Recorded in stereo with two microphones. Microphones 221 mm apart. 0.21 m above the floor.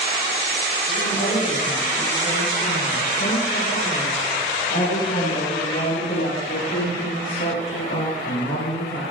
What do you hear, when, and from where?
0.9 s a woman speaking: 40° left (ahead or behind), 9.5 m; by 9.0 s 75° left (ahead or behind), 5 m